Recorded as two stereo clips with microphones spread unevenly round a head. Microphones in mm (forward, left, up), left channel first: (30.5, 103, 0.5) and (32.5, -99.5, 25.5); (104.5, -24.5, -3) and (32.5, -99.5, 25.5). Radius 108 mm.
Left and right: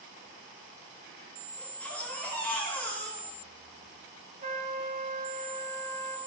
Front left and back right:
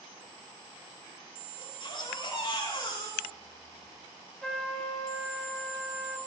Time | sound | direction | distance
1.6 | a baby crying | 10° left | 10 m
4.4 | a trumpet | 40° right | 7 m